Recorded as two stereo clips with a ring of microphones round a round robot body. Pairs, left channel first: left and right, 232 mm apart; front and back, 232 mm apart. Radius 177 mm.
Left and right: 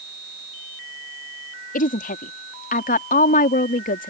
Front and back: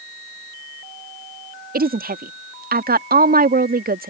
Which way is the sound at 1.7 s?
140° left.